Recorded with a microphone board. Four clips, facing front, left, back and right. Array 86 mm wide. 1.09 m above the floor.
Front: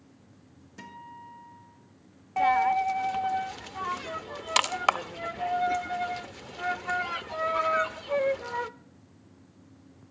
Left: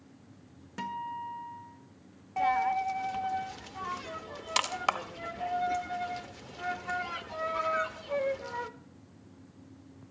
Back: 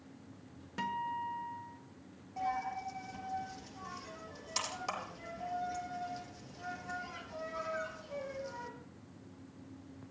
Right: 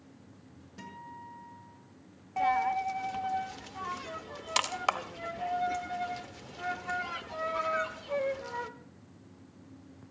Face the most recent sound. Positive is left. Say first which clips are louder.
# left 1 dB, front 14 dB
turn(degrees=0)